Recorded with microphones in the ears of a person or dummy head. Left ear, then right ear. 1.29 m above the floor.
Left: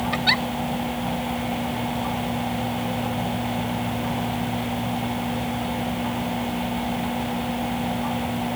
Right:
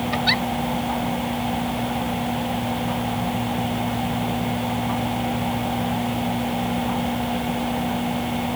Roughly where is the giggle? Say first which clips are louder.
Even; centre.